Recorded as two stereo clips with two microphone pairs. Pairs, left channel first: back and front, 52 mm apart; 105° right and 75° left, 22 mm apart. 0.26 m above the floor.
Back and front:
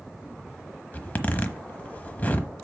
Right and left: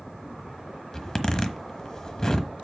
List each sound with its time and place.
0.9 s a zipper: 150° right, 1.0 m